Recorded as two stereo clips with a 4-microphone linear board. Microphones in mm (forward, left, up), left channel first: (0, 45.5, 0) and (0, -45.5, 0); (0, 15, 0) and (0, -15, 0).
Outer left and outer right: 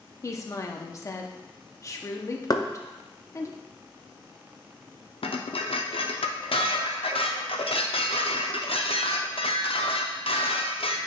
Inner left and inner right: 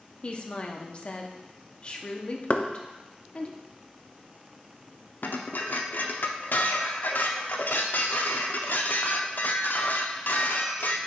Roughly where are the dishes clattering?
Left.